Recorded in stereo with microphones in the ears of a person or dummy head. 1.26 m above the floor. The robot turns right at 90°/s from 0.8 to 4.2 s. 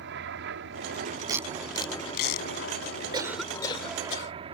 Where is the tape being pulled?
25° right (ahead or behind); by 2.5 s 85° left.